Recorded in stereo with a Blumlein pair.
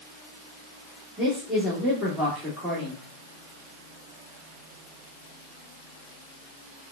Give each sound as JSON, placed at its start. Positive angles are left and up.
{"t": 1.2, "sound": "a man speaking", "azimuth_deg": -5, "distance_m": 1.5}